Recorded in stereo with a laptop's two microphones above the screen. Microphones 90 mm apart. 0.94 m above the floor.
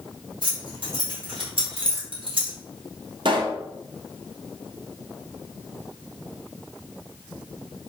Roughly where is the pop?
Right.